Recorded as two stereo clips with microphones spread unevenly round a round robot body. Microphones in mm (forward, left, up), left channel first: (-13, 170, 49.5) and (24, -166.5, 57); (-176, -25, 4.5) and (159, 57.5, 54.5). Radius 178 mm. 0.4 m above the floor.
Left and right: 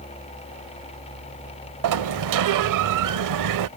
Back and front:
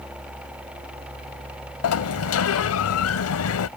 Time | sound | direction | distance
1.8 | a sliding door | 120° right | ?